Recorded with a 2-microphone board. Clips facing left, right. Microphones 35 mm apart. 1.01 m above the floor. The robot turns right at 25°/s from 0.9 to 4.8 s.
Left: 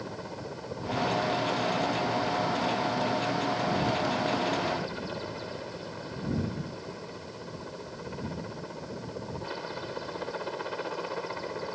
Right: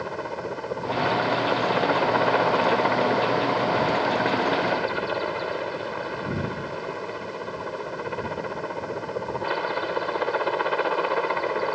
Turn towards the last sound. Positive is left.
turn(degrees=-45)